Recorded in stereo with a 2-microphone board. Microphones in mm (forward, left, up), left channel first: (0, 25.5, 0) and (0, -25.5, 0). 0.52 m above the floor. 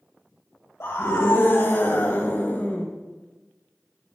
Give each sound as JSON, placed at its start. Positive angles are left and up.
{"t": 0.8, "sound": "a scream", "side_deg": 55, "distance_m": 2.5}